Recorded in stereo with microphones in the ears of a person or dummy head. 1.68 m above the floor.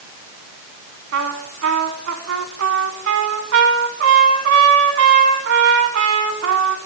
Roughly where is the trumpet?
Right.